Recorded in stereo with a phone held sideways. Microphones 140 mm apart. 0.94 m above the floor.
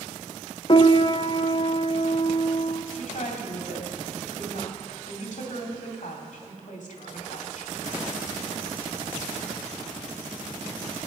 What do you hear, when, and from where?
0.7 s a piano: 35° left (ahead or behind), 0.5 m
2.9 s a woman speaking: 60° left (ahead or behind), 2 m